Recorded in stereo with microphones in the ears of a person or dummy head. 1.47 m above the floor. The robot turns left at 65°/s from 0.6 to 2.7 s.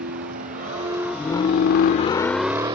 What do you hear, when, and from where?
0.0 s a vehicle: 60° right (ahead or behind); by 2.8 s 30° right (ahead or behind)